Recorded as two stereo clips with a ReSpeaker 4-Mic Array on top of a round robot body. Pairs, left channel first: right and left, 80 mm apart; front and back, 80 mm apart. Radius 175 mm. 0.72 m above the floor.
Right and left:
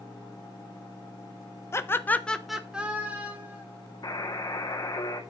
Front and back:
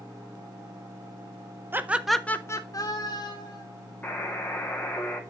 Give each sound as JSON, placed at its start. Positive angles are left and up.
{"t": 1.7, "sound": "laughter", "azimuth_deg": -130, "distance_m": 1.0}
{"t": 4.0, "sound": "a buzzer", "azimuth_deg": -65, "distance_m": 2.0}